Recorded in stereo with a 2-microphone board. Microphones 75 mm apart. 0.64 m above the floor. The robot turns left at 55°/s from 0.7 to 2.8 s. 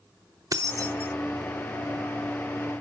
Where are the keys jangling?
55° right (ahead or behind), 0.8 m; by 1.1 s 30° right (ahead or behind), 0.8 m.